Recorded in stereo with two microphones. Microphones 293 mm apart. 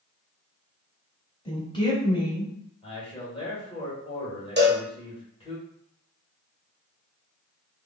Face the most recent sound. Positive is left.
turn(degrees=-35)  # may be behind; listen again after turning